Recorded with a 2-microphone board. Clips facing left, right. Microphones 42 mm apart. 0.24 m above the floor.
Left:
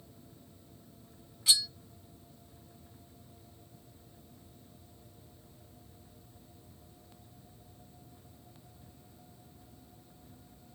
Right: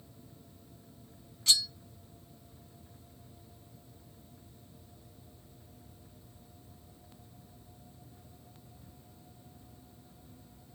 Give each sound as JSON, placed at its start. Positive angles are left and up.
{"t": 1.5, "sound": "cutlery clinking", "side_deg": 10, "distance_m": 0.5}